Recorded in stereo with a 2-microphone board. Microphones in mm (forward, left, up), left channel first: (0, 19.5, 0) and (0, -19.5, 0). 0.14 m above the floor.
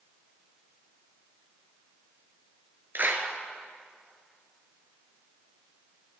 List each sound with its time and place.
3.0 s a clap: 50° right (ahead or behind), 1.6 m